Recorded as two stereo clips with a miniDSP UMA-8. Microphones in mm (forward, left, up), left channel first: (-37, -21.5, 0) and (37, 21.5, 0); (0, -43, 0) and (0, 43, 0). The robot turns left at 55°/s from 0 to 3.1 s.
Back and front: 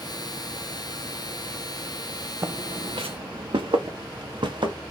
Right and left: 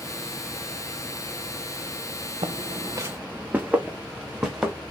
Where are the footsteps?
90° left, 0.5 m; by 4.7 s 5° left, 1.5 m.